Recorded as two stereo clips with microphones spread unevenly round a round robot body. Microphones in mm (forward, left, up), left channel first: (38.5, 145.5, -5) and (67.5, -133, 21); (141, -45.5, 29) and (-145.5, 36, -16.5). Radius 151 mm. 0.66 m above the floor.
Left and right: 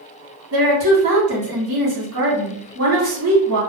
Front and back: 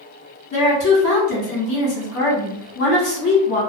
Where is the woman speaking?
60° right, 1.6 m.